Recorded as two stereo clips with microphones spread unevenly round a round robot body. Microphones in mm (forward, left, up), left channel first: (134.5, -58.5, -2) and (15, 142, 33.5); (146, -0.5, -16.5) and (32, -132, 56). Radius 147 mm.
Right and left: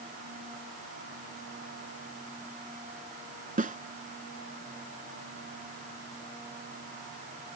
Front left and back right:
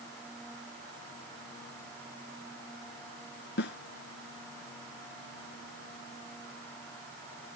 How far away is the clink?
I don't hear a clink.